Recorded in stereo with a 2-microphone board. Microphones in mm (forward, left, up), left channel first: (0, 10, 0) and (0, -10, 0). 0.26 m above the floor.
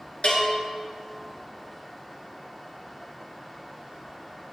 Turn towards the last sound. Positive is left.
turn(degrees=70)  # may be behind; listen again after turning